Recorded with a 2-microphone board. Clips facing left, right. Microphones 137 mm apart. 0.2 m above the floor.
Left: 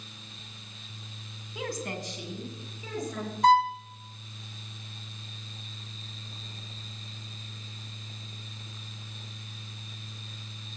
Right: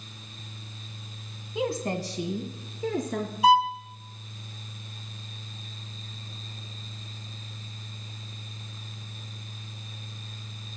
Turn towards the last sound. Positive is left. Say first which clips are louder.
# right 1 dB
turn(degrees=-10)  # may be behind; listen again after turning